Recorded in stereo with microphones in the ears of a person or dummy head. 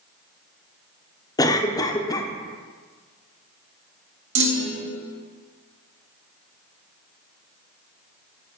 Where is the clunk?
75° right (ahead or behind), 1.6 m.